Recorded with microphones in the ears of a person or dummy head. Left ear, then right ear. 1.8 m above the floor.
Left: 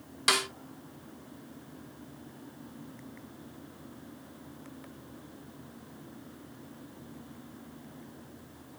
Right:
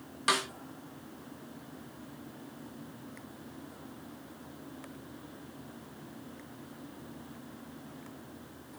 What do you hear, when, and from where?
0.3 s a snare drum: 20° left (ahead or behind), 1.0 m